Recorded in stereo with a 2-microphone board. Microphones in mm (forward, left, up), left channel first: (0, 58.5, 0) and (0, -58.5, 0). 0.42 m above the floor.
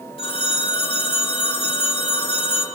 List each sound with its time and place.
0.2 s a phone ringing: 50° left (ahead or behind), 4.5 m